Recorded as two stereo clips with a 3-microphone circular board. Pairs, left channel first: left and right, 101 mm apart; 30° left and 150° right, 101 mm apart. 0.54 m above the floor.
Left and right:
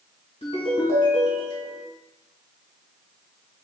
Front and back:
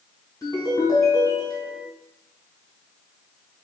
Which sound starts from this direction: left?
A ringtone, at 0.4 s.